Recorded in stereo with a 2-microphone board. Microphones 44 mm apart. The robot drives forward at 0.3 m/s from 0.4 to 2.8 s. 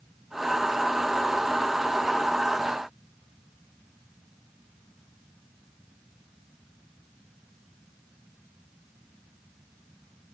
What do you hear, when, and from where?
Only background noise.